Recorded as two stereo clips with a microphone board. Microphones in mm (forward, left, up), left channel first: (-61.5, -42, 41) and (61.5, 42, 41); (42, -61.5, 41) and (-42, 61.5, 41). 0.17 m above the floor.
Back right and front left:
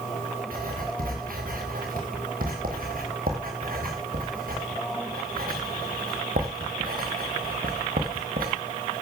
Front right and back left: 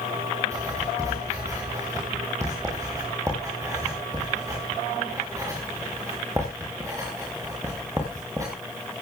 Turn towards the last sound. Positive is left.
turn(degrees=55)